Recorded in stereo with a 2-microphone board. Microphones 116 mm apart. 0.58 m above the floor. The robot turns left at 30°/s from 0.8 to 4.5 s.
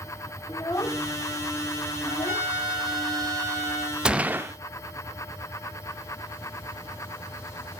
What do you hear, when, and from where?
0.5 s a child speaking: 30° left (ahead or behind), 0.9 m; by 2.5 s 60° left (ahead or behind), 0.9 m
2.0 s a trumpet: 150° right, 5.5 m; by 4.0 s 155° left, 5.5 m
4.0 s a gunshot: 5° right (ahead or behind), 0.5 m; by 4.5 s 20° right (ahead or behind), 0.5 m